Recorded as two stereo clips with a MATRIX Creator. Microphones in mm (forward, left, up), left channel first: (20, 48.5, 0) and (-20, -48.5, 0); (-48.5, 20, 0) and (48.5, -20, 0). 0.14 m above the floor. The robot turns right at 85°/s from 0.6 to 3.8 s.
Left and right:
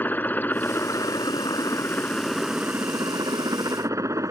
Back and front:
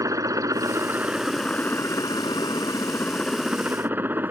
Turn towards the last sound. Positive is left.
turn(degrees=-80)